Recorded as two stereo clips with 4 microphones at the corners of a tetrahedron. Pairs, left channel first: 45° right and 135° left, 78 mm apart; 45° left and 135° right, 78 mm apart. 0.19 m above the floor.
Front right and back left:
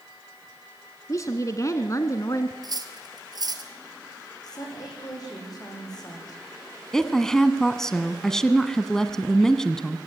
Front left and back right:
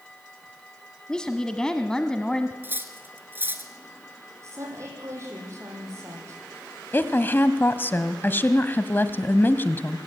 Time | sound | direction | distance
1.1 | a woman speaking | 30° right | 1.4 m
2.6 | cutlery clinking | 165° left | 2 m
4.4 | a woman speaking | 80° right | 8.5 m
6.9 | a woman speaking | 30° left | 1.3 m